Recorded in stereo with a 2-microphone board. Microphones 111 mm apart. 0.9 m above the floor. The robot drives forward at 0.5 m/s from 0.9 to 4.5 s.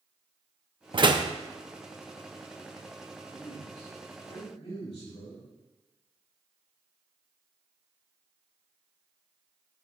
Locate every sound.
0.9 s a door slam: 45° right (ahead or behind), 0.5 m; by 1.3 s 35° right (ahead or behind), 0.7 m
3.3 s a man speaking: 70° left (ahead or behind), 4 m; by 5.5 s 60° left (ahead or behind), 4.5 m